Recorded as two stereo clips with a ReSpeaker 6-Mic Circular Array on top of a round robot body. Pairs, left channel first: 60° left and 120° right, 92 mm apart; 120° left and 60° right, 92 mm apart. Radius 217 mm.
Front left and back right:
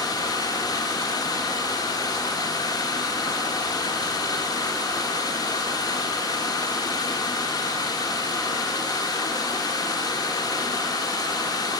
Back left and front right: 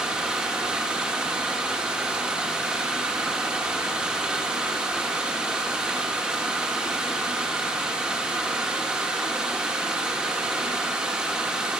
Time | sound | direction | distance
0.0 | running water | 20° left | 1.7 m